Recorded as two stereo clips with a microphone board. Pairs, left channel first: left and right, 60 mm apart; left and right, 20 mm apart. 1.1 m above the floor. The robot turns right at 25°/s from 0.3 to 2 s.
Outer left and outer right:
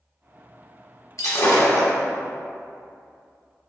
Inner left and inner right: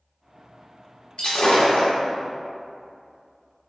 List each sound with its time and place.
1.2 s breaking glass: 60° left (ahead or behind), 1.1 m